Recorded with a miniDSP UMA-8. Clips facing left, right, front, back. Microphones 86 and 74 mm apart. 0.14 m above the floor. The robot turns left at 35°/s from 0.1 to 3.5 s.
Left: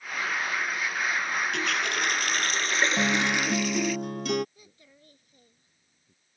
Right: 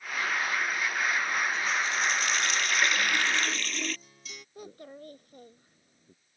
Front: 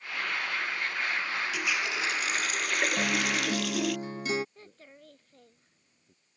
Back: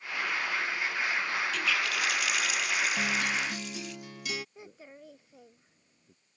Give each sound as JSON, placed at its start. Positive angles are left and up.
{"t": 1.5, "sound": "a running tap", "azimuth_deg": 80}
{"t": 3.0, "sound": "a guitar", "azimuth_deg": 75}
{"t": 4.5, "sound": "a child speaking", "azimuth_deg": -105}